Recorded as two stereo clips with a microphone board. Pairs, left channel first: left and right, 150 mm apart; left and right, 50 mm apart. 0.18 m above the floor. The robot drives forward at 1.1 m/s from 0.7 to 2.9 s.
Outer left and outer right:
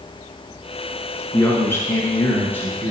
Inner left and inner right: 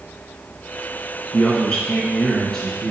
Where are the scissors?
No scissors in this recording.